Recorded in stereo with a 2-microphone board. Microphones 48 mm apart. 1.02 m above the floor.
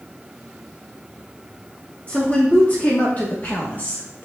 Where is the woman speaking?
30° left (ahead or behind), 2.5 m; by 4.3 s 40° left (ahead or behind), 1.2 m.